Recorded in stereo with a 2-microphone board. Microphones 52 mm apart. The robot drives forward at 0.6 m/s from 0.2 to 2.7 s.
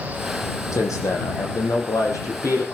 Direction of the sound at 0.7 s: 80° left.